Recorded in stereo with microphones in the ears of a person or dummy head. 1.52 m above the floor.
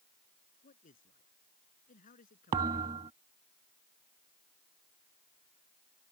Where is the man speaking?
40° left (ahead or behind); by 3.0 s 45° left (ahead or behind).